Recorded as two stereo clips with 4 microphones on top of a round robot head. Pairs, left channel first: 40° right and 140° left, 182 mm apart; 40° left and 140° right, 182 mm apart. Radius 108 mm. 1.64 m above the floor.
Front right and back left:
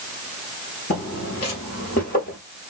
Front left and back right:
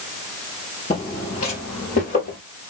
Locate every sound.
0.9 s footsteps: 25° right, 2.5 m; by 2.4 s straight ahead, 3 m